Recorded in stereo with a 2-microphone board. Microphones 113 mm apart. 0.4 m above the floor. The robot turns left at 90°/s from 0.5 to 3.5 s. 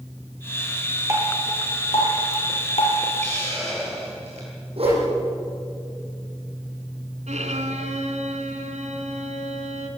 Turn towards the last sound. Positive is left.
turn(degrees=-80)